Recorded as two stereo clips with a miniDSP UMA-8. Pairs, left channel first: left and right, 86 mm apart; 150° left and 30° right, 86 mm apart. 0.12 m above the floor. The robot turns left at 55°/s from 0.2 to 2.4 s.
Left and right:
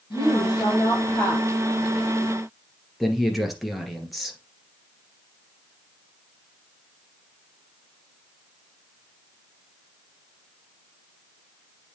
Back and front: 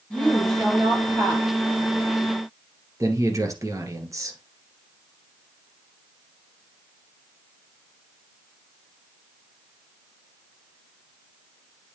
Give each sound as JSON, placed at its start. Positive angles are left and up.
{"t": 0.1, "sound": "a woman speaking", "azimuth_deg": 85, "distance_m": 4.0}
{"t": 3.0, "sound": "a man speaking", "azimuth_deg": 0, "distance_m": 1.8}